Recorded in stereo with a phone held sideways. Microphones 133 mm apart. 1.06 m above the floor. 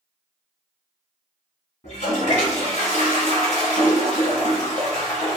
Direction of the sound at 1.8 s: 55° left (ahead or behind).